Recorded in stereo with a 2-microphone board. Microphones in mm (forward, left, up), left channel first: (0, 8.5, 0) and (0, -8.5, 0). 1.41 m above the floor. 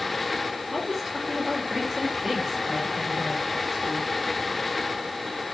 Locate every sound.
0.7 s a woman speaking: 5° right (ahead or behind), 3 m